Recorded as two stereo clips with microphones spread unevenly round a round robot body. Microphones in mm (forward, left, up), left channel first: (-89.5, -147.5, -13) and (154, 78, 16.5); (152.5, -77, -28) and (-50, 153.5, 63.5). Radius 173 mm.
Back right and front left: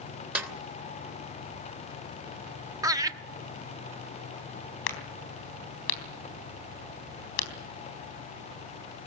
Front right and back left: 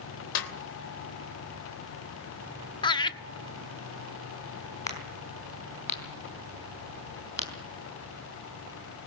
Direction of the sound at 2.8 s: 35° right.